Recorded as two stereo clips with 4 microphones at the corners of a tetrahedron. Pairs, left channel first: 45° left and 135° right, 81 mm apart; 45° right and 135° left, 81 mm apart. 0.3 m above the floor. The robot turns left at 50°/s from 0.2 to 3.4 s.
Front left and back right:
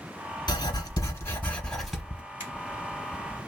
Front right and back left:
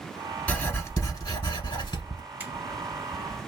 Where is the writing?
25° left, 1.0 m; by 2.2 s 60° right, 1.0 m.